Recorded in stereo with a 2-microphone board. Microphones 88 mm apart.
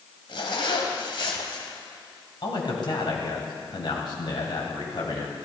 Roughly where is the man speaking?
Left.